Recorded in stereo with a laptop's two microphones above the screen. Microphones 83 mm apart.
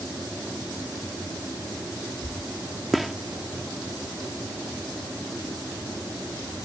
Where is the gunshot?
Centre (ahead or behind).